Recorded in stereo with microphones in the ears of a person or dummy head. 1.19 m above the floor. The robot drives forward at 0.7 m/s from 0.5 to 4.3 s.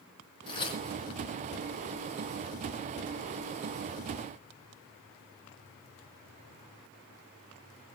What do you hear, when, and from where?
0.5 s tearing paper: 30° left (ahead or behind), 4 m